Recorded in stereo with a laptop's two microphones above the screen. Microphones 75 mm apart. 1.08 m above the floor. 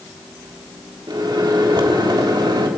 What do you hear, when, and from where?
1.1 s a microwave: 80° right, 1.7 m